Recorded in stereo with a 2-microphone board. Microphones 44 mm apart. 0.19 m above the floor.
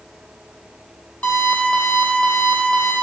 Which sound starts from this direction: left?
An alarm clock, at 1.2 s.